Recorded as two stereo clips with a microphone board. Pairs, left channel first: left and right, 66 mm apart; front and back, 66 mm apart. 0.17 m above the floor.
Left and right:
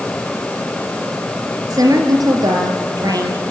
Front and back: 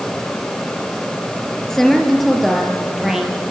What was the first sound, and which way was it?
A woman speaking, 85° right.